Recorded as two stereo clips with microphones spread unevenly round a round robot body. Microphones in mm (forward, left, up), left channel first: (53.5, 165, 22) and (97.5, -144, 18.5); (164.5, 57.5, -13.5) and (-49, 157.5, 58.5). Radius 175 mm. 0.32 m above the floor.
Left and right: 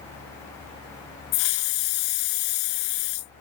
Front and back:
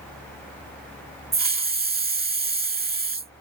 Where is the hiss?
100° left.